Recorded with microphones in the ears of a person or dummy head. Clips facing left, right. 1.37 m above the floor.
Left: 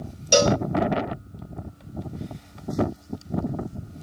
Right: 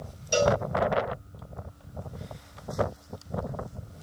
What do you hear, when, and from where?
0.3 s a cowbell: 75° left (ahead or behind), 0.7 m